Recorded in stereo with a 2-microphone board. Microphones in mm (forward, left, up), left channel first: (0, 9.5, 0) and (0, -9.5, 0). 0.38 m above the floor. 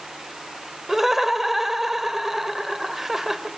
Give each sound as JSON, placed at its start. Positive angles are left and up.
{"t": 0.9, "sound": "laughter", "side_deg": -15, "distance_m": 1.7}